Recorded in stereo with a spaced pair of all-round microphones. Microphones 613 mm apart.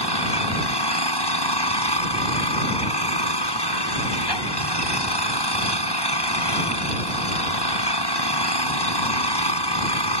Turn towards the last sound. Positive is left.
turn(degrees=40)  # may be behind; listen again after turning